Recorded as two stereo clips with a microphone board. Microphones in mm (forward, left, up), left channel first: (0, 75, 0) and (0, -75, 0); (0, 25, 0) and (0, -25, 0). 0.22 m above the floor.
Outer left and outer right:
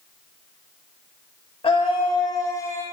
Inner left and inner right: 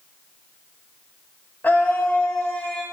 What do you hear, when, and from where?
1.6 s a scream: 40° left (ahead or behind), 1.2 m; by 2.8 s 20° left (ahead or behind), 1.3 m